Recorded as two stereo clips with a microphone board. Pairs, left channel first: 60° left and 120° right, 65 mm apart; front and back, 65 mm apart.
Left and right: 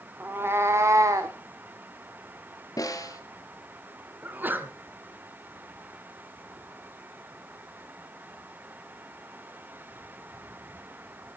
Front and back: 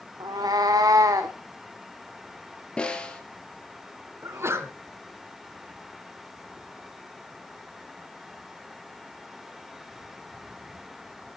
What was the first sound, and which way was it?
A cat meowing, straight behind.